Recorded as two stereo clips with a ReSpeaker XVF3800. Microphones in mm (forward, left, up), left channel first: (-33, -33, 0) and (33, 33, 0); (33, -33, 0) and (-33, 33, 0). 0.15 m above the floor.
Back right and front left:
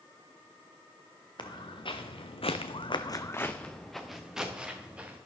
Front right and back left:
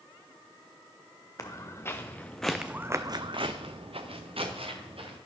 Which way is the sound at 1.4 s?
100° right.